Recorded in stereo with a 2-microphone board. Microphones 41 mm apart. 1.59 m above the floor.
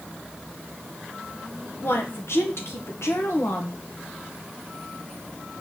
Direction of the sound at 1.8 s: 60° left (ahead or behind).